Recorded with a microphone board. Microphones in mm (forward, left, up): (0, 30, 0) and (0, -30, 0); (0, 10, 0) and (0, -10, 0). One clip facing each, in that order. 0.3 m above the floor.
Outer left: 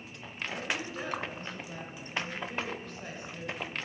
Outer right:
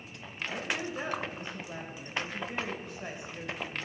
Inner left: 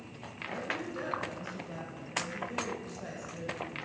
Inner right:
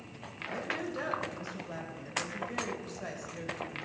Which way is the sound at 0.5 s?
20° right (ahead or behind).